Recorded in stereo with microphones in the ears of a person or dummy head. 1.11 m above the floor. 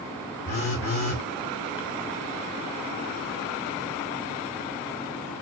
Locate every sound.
0.5 s a phone buzzing: 40° left (ahead or behind), 5 m